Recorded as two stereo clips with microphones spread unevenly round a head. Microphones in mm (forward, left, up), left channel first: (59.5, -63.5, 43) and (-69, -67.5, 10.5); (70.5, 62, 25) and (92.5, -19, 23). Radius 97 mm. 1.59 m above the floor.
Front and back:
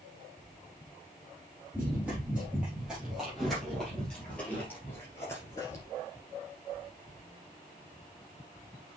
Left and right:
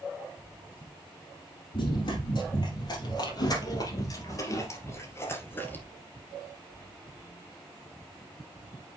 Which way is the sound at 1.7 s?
95° left.